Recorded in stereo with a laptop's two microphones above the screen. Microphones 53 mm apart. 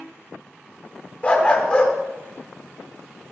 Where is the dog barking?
25° left (ahead or behind), 0.9 m.